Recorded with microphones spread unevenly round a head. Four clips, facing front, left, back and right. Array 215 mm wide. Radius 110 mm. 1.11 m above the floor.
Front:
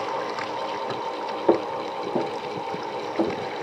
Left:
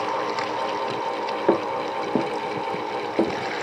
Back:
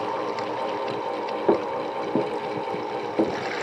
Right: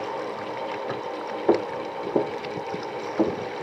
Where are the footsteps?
90° left, 1.1 m; by 3.3 s 110° left, 1.7 m.